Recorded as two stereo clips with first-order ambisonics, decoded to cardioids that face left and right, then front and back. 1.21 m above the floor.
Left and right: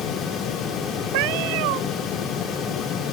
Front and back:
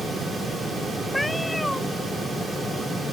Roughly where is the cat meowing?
Right.